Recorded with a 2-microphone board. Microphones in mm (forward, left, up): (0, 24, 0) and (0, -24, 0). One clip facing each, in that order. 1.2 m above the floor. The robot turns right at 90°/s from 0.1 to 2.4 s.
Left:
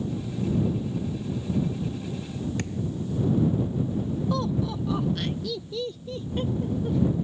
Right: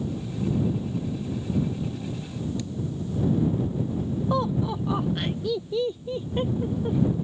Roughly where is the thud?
Left.